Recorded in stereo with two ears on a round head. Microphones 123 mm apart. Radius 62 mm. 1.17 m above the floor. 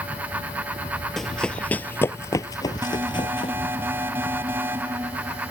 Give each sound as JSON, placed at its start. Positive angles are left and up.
{"t": 1.2, "sound": "running footsteps", "side_deg": 0}
{"t": 2.8, "sound": "an alarm", "side_deg": -15}